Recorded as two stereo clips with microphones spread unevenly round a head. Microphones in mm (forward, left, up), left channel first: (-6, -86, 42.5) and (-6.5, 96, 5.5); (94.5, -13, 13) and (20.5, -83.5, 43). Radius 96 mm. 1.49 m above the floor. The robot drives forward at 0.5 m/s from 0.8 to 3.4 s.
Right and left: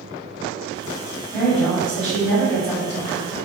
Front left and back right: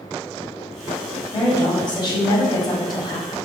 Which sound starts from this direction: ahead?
A woman speaking, at 1.3 s.